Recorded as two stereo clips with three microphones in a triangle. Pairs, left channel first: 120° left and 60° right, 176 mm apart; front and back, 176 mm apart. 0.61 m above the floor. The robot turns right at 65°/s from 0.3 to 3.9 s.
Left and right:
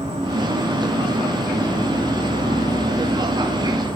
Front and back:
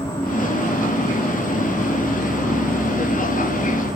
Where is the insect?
40° right, 1.5 m; by 4.0 s 165° right, 1.5 m.